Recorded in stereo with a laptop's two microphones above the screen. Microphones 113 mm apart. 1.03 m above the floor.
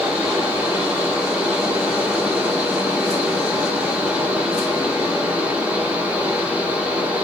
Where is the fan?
10° right (ahead or behind), 0.9 m.